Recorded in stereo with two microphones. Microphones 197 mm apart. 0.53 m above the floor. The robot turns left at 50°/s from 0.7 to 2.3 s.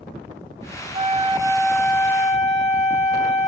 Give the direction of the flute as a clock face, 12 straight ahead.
5 o'clock.